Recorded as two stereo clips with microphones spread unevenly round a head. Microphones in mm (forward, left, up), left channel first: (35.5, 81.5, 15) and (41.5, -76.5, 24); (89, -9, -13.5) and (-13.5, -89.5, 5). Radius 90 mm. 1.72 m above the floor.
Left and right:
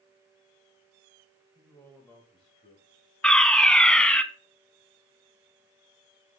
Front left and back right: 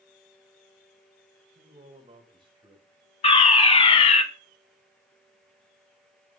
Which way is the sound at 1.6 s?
175° right.